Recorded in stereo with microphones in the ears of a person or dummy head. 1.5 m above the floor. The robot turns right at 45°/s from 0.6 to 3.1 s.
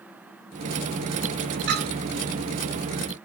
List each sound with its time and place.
1.7 s a clink: 60° right (ahead or behind), 1.5 m; by 1.9 s 55° right (ahead or behind), 1.5 m